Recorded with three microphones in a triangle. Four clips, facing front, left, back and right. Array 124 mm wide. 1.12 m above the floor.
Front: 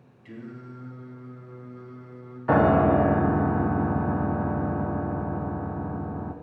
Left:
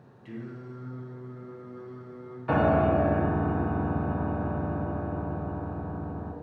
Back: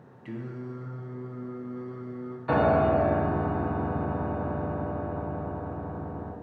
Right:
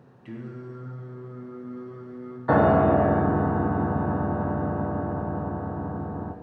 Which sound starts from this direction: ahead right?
A piano, at 2.5 s.